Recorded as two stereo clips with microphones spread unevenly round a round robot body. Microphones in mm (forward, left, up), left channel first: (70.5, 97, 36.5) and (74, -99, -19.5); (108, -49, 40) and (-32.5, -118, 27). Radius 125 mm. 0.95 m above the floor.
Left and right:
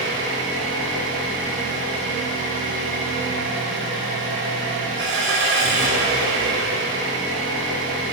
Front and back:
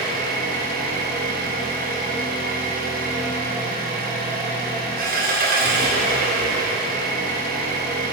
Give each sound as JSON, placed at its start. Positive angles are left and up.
{"t": 0.0, "sound": "an engine running", "azimuth_deg": -135, "distance_m": 3.0}